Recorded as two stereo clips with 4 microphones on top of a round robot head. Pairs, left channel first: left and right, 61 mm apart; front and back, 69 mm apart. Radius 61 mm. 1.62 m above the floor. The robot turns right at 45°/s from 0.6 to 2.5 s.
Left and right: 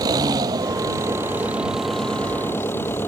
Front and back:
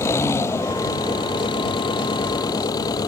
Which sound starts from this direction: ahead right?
An engine running, at 0.0 s.